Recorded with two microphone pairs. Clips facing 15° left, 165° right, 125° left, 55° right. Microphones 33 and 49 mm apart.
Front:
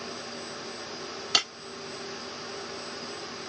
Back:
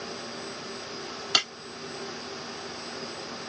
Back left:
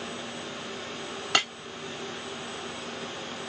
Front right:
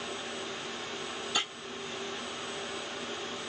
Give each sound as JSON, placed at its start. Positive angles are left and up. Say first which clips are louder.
{"t": 1.3, "sound": "breaking glass", "louder": "back 1 dB, back left 8 dB", "azimuth_deg": 110, "distance_m": 2.0}